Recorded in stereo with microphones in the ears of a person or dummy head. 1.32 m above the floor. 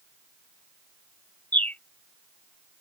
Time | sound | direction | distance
1.5 | a bird | 10° left (ahead or behind) | ?